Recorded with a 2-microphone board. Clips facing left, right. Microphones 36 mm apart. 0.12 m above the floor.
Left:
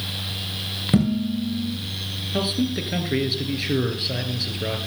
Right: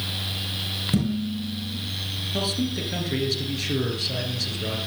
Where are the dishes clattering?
30° left (ahead or behind), 6 m.